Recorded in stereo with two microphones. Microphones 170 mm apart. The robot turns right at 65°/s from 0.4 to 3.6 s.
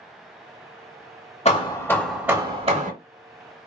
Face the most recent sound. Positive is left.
turn(degrees=-85)